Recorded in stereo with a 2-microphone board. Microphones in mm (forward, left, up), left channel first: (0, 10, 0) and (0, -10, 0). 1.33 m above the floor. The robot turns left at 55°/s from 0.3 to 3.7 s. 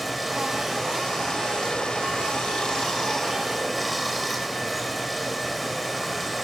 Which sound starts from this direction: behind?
Running water, at 0.0 s.